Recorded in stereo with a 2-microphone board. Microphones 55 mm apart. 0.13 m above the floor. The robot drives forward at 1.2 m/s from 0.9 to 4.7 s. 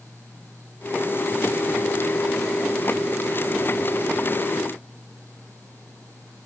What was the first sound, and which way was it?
Only background noise.